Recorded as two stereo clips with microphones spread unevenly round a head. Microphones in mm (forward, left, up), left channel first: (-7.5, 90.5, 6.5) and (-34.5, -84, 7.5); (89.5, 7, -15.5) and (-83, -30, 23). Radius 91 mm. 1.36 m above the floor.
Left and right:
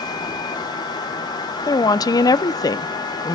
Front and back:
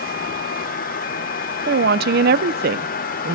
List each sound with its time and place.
1.7 s a woman speaking: 150° left, 0.9 m